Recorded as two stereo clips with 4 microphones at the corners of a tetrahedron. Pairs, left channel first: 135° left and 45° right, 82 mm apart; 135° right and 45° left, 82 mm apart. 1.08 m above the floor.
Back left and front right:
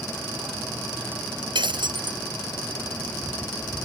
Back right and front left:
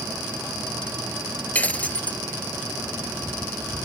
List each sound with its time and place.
1.6 s breaking glass: 65° right